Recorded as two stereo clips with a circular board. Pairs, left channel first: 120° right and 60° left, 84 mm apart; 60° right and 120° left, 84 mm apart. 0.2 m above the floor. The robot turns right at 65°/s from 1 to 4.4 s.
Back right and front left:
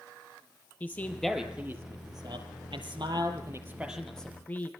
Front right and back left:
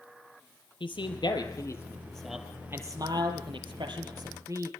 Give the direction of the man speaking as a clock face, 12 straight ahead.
2 o'clock.